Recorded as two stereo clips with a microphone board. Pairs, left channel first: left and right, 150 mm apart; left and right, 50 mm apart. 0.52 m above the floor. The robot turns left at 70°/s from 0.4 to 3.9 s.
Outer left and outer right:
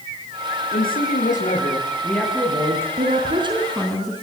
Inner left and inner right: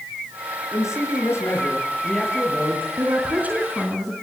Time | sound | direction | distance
0.7 | a man speaking | 105° left | 9.5 m
3.0 | a woman speaking | 115° right | 5 m